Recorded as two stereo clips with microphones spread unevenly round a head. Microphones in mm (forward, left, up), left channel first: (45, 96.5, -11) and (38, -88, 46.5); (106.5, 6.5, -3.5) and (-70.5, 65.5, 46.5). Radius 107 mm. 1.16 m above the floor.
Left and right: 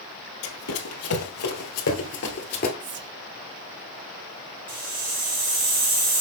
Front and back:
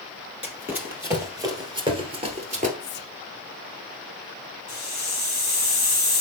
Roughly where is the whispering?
Ahead right.